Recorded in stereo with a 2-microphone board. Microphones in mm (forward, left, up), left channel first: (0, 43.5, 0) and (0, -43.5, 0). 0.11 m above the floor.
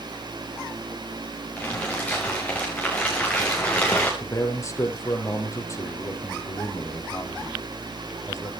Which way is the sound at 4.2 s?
35° left (ahead or behind).